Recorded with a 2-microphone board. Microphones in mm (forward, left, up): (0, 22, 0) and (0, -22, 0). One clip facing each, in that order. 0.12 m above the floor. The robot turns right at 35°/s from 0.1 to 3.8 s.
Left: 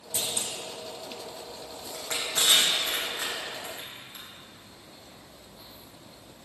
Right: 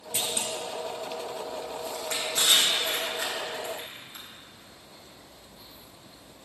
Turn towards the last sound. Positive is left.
turn(degrees=10)  # may be behind; listen again after turning